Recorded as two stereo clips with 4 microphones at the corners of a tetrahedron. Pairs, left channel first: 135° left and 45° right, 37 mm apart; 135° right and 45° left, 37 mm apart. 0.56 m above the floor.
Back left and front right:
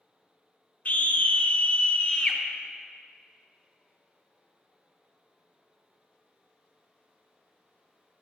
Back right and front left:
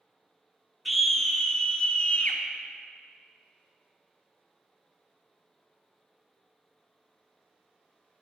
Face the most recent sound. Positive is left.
turn(degrees=-170)